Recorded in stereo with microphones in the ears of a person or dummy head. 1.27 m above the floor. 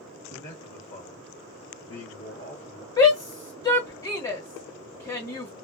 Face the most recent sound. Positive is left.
turn(degrees=35)  # may be behind; listen again after turning